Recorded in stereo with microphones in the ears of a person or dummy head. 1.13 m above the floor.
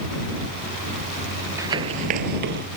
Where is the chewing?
No chewing in this recording.